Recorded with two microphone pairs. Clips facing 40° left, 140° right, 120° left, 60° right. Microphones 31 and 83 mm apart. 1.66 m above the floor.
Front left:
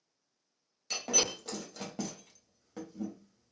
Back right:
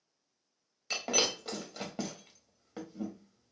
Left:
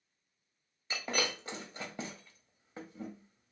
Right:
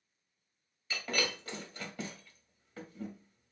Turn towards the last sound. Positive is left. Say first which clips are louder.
# back right 2 dB, even
turn(degrees=165)